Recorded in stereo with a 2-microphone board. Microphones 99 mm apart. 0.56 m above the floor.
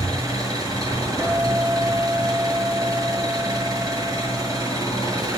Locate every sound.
0.0 s an engine running: 50° right (ahead or behind), 7 m
1.2 s a guitar: 25° right (ahead or behind), 5 m